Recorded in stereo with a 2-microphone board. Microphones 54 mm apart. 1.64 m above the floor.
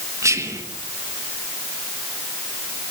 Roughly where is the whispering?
Right.